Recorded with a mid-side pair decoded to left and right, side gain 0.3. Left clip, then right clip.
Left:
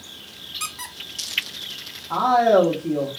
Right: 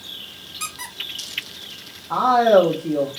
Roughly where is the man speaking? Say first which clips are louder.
Right 2 dB; ahead.